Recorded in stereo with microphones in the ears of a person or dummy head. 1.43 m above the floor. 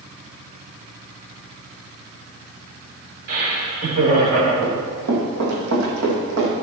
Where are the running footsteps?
60° right (ahead or behind), 3 m; by 6.5 s 70° right (ahead or behind), 4.5 m.